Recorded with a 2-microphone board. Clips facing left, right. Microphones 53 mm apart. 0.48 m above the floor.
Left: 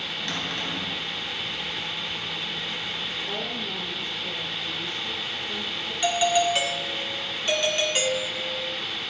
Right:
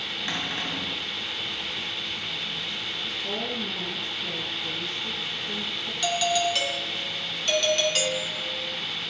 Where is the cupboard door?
20° right (ahead or behind), 3 m.